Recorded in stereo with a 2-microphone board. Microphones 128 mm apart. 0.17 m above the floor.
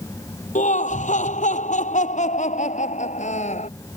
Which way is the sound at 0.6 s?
75° left (ahead or behind).